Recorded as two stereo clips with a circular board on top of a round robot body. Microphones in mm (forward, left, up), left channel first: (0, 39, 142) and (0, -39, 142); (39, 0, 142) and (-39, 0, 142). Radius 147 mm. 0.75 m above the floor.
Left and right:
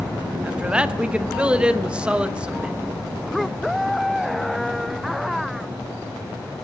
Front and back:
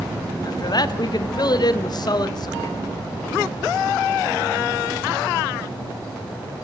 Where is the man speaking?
15° right, 1.0 m.